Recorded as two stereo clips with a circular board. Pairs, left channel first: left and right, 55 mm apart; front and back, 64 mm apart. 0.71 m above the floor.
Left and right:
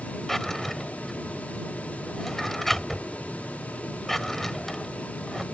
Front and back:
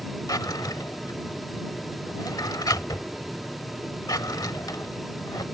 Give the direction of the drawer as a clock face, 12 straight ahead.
12 o'clock.